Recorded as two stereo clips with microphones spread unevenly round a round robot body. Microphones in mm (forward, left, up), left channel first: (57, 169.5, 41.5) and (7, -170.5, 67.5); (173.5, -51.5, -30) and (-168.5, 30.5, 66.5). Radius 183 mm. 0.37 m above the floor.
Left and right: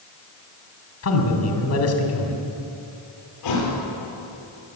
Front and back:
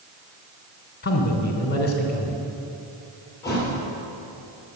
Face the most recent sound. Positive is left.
turn(degrees=70)